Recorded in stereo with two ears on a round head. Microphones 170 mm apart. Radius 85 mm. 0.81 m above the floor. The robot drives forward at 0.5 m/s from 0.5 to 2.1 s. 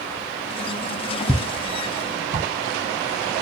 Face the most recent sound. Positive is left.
turn(degrees=-45)  # may be behind; listen again after turning